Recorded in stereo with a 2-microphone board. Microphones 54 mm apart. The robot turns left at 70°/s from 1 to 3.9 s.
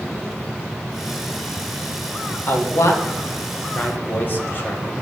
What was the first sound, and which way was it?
A man speaking, 35° left (ahead or behind).